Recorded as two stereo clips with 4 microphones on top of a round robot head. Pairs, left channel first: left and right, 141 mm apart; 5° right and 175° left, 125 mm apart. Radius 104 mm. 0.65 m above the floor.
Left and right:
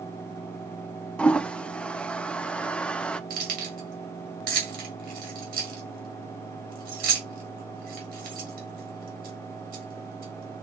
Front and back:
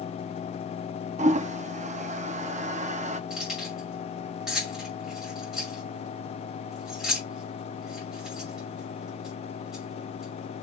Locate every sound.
1.2 s a toilet flushing: 170° left, 0.5 m
3.3 s keys jangling: 100° right, 2 m